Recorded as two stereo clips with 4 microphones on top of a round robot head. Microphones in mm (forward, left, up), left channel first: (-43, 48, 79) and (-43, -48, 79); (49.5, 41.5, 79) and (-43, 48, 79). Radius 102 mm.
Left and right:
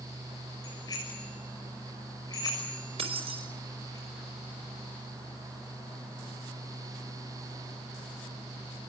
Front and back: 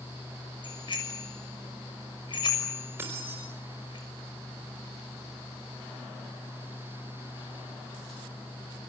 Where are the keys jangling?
115° right, 5 m.